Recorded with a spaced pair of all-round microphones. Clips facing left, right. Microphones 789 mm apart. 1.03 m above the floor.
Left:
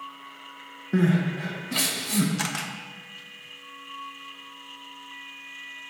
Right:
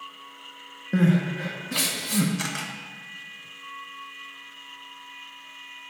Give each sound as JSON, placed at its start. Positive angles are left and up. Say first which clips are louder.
{"t": 0.9, "sound": "crying", "louder": "right 1 dB", "side_deg": -10, "distance_m": 0.6}
{"t": 2.4, "sound": "a camera shutter", "louder": "even", "side_deg": 35, "distance_m": 0.6}